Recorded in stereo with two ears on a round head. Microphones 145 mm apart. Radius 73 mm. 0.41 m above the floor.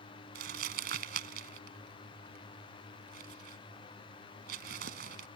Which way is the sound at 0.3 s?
65° right (ahead or behind).